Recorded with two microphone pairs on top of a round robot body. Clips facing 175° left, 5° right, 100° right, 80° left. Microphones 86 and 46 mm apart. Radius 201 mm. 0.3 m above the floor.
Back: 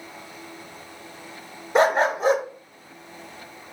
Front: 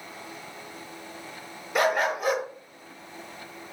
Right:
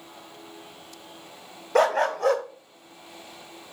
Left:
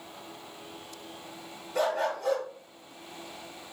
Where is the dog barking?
125° right, 0.6 m.